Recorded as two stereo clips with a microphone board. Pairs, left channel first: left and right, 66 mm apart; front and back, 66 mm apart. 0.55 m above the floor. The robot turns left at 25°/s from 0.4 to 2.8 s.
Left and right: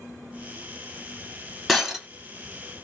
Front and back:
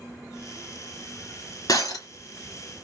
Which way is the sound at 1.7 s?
5° left.